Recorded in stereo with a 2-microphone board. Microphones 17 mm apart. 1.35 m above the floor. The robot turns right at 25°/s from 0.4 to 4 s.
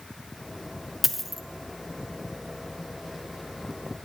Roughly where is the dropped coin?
Centre.